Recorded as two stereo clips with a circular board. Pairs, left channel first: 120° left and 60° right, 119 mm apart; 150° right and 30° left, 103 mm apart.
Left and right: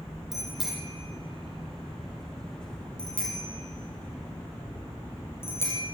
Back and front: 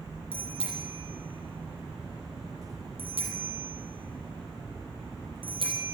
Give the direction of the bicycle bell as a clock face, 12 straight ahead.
11 o'clock.